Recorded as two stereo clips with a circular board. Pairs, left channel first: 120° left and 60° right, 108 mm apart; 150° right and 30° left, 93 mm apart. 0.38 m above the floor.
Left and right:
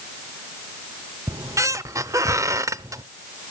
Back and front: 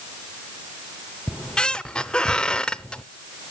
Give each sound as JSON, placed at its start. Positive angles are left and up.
{"t": 1.3, "sound": "a squeak", "azimuth_deg": -75, "distance_m": 0.5}